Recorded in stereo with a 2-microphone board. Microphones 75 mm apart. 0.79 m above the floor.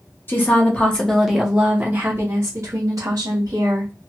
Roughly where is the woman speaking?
Left.